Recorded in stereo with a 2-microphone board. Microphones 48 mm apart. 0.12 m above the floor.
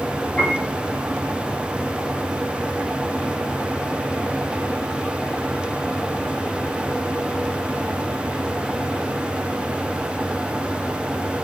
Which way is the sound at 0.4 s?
15° left (ahead or behind).